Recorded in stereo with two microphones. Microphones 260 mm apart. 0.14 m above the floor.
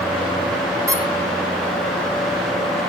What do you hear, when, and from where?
0.9 s a squeak: 10° right (ahead or behind), 1.7 m